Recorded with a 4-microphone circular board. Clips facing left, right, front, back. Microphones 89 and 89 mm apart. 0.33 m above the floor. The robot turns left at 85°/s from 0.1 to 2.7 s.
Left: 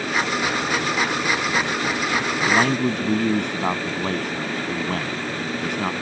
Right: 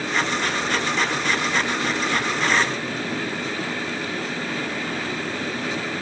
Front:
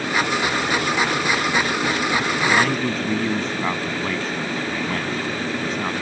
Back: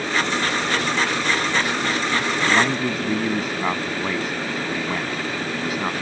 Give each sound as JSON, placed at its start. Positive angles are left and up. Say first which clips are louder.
{"t": 2.5, "sound": "a man speaking", "louder": "left 7 dB, even", "azimuth_deg": 120}